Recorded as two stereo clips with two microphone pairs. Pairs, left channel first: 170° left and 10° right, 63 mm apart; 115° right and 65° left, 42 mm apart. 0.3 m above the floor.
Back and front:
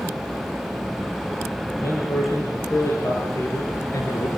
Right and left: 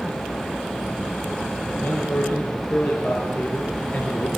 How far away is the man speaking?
About 9 m.